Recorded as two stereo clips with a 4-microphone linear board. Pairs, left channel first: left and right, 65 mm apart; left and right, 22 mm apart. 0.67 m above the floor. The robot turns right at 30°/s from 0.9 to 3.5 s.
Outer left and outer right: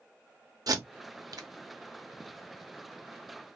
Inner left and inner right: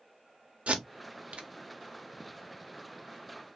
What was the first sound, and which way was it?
Tape being pulled, 70° right (ahead or behind).